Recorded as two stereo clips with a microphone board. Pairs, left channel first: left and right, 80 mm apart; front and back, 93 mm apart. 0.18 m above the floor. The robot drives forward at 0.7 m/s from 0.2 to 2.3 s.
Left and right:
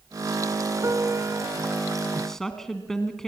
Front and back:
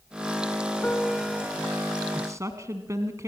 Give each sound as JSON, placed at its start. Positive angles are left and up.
{"t": 0.8, "sound": "a piano", "azimuth_deg": -70, "distance_m": 0.8}
{"t": 2.1, "sound": "a woman speaking", "azimuth_deg": 170, "distance_m": 1.6}